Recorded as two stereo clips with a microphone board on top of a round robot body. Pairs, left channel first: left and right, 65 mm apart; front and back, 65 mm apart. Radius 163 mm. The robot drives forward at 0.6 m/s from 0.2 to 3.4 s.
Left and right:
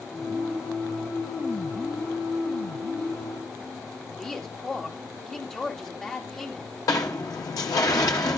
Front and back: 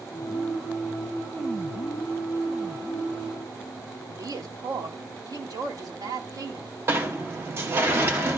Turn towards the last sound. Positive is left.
turn(degrees=125)